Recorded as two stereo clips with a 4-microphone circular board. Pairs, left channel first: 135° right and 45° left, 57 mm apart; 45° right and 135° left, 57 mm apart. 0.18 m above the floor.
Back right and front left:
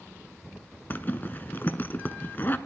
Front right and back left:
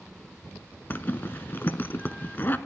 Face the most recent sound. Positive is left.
turn(degrees=-90)